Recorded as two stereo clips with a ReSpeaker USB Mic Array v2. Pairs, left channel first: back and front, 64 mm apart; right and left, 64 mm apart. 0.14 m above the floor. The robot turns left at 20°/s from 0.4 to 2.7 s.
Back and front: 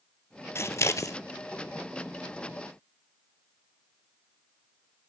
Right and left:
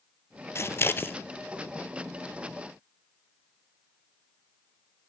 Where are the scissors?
135° right, 0.5 m; by 1.2 s 145° right, 0.5 m.